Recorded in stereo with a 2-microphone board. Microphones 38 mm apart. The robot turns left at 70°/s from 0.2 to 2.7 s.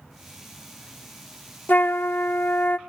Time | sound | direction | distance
1.7 | a flute | 120° left | 0.8 m